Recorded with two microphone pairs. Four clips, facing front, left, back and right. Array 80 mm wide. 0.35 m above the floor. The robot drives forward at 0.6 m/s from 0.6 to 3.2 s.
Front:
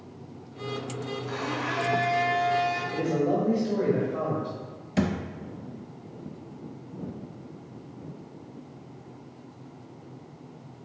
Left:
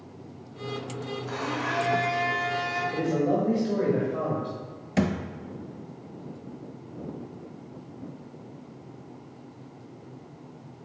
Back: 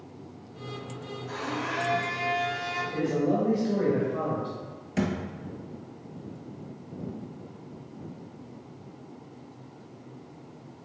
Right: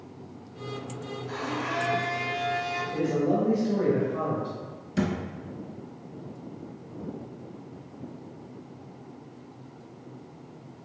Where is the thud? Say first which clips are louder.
Left 2 dB, front 2 dB; 100° left, 0.6 m.